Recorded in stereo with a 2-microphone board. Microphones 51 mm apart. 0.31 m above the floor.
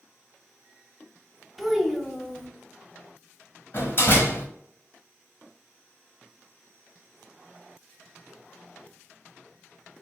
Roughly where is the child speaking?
Centre.